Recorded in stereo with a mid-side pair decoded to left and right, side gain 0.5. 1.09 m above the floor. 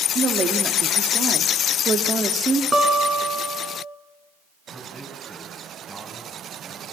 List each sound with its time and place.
0.1 s a woman speaking: 40° right, 2.5 m
2.7 s a guitar: 20° right, 4.5 m
4.7 s a man speaking: 15° right, 8 m